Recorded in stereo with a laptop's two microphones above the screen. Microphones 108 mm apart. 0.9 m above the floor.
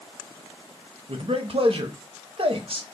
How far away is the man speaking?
About 0.7 m.